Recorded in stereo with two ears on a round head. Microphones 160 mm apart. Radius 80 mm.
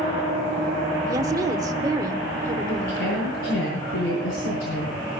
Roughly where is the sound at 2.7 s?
Left.